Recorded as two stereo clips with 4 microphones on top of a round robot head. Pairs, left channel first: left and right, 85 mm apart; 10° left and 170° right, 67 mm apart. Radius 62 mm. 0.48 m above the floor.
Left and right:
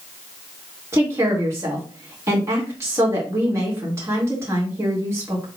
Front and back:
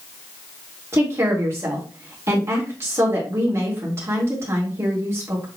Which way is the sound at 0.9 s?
135° right.